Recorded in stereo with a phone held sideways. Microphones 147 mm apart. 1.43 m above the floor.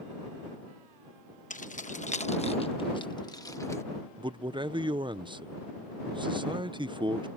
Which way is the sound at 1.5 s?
60° left (ahead or behind).